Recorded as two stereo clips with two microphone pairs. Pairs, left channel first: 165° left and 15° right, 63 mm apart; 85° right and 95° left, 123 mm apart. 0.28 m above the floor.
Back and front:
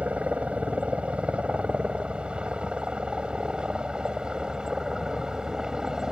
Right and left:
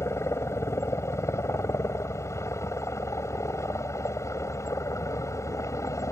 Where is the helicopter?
55° right; by 6.1 s 80° right.